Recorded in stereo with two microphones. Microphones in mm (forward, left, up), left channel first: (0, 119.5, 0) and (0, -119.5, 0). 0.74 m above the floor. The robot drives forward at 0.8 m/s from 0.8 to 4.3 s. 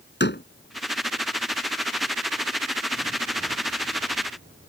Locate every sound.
0.2 s a door slam: 45° left (ahead or behind)